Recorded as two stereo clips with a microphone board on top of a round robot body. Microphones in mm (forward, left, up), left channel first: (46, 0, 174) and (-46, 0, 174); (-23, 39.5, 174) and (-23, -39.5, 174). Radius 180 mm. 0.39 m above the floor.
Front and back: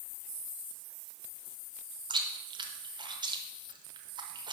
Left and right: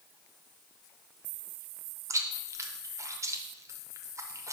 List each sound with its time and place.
2.1 s chewing: 145° right, 0.7 m